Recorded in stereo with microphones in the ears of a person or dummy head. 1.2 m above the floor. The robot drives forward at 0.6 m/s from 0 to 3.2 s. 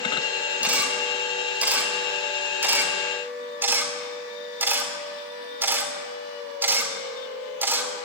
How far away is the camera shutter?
About 5 m.